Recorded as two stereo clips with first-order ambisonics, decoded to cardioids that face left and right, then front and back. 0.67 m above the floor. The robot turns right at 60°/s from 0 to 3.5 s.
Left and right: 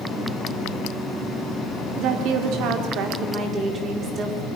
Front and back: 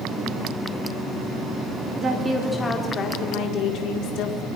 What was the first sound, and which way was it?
A woman speaking, 120° right.